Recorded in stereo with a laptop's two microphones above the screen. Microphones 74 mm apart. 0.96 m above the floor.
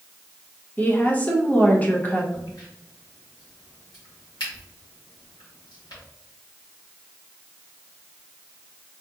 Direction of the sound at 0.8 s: 20° left (ahead or behind).